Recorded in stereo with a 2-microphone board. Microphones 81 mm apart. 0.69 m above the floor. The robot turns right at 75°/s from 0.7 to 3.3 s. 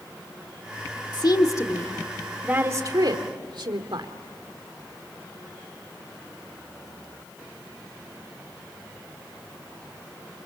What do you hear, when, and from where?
1.1 s a woman speaking: 65° left (ahead or behind), 1.9 m; by 4.1 s 70° right (ahead or behind), 1.9 m